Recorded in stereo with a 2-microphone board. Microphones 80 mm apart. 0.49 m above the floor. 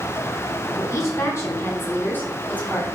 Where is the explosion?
I don't hear an explosion.